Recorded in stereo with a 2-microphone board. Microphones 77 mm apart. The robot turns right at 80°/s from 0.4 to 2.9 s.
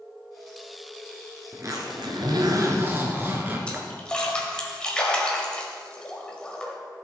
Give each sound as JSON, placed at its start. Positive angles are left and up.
{"t": 1.5, "sound": "a zipper", "azimuth_deg": -140, "distance_m": 1.6}
{"t": 3.7, "sound": "a splash", "side_deg": 15, "distance_m": 1.5}